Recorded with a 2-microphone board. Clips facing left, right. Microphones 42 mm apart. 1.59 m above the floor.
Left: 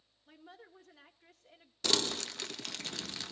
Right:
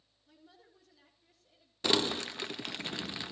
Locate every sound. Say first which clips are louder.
0.3 s a woman speaking: left 6 dB; 50° left (ahead or behind), 3.5 m; by 1.7 s 65° left (ahead or behind), 3 m
1.8 s crumpling: right 3 dB; 20° right (ahead or behind), 0.9 m